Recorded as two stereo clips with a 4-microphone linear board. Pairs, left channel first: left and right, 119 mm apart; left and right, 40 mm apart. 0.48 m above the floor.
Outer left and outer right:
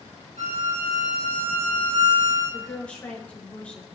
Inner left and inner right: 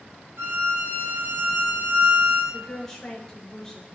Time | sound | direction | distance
0.4 | a violin | 70° right (ahead or behind) | 5.5 m
2.5 | a woman speaking | 10° left (ahead or behind) | 4.5 m